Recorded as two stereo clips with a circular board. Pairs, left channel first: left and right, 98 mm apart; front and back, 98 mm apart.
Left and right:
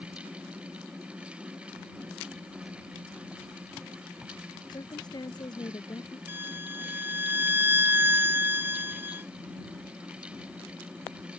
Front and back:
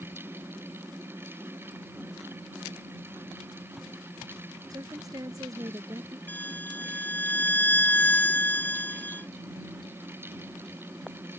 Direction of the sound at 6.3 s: 45° right.